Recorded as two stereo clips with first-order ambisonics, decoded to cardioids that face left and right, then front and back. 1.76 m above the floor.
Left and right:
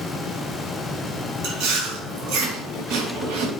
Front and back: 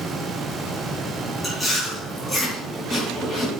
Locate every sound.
1.4 s chewing: 80° right, 3.5 m